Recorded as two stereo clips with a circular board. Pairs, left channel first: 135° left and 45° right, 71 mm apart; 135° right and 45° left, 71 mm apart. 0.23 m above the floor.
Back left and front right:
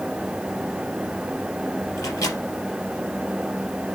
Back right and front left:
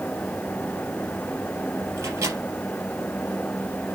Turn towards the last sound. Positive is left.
turn(degrees=95)